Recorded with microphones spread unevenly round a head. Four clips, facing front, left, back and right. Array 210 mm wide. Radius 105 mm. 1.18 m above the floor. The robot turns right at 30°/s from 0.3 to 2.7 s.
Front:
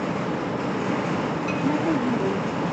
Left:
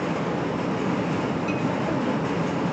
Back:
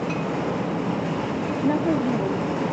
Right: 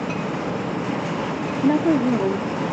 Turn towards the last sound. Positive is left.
turn(degrees=-60)